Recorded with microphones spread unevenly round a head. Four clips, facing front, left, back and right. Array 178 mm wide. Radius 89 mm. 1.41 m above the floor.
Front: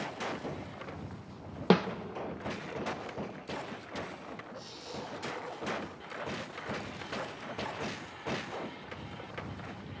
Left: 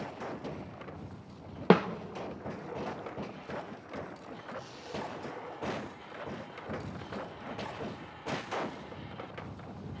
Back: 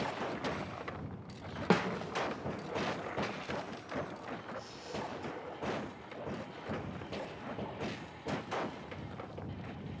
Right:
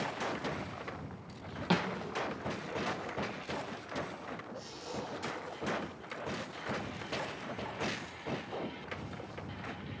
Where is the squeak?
70° left, 8 m.